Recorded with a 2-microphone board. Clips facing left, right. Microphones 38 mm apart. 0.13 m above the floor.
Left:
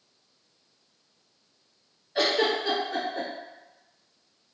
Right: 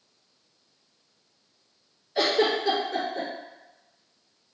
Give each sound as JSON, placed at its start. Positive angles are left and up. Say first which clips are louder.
{"t": 2.1, "sound": "a giggle", "louder": "right 1 dB", "side_deg": 20, "distance_m": 1.9}